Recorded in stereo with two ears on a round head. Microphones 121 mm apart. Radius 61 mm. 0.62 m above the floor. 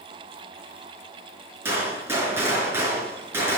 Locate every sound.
1.6 s a gunshot: 15° right (ahead or behind), 4.5 m